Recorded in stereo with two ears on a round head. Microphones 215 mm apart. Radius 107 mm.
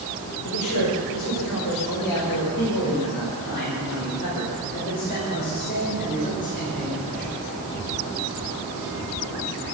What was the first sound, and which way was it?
A man speaking, 75° left (ahead or behind).